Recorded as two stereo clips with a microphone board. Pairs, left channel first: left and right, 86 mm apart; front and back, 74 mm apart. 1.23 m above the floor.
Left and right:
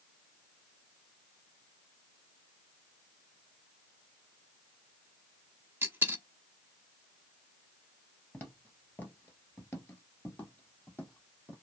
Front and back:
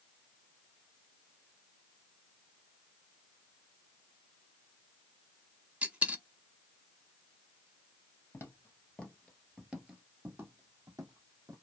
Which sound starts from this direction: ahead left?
Footsteps, at 8.3 s.